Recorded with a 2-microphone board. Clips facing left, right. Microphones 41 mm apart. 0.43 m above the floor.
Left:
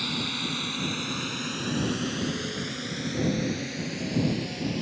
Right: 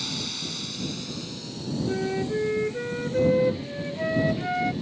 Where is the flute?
75° right (ahead or behind).